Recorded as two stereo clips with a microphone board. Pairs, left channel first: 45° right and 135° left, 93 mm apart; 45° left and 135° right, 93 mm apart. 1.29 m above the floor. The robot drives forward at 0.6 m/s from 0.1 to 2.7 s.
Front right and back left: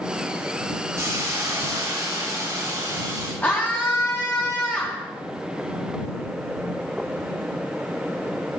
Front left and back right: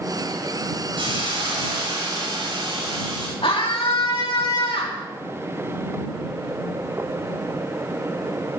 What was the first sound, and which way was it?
A hiss, 165° right.